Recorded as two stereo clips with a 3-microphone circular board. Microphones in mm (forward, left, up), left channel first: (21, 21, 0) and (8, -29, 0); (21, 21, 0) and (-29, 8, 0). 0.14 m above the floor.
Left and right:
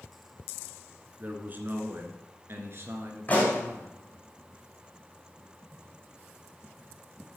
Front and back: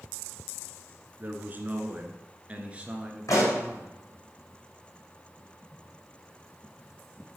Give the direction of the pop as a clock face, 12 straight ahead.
12 o'clock.